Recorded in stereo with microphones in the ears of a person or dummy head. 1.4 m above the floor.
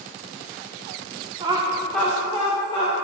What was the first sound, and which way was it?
Laughter, 30° right (ahead or behind).